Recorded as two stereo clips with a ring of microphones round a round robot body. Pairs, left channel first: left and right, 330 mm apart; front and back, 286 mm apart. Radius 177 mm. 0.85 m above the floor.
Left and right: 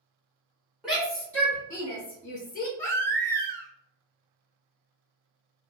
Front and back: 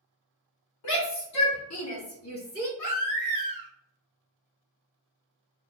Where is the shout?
Straight ahead, 2 m; by 2.7 s 35° left, 1.6 m.